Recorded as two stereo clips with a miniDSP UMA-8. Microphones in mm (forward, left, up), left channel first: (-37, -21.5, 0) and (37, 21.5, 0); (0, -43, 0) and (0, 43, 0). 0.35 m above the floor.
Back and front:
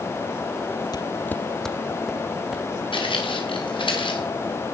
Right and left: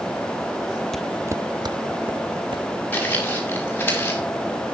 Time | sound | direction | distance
0.9 | footsteps | 175° right | 0.5 m
2.9 | footsteps | 160° right | 6.5 m